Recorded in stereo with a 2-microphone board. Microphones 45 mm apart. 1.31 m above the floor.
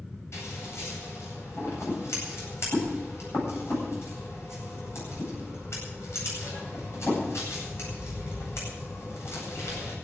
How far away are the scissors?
About 9 m.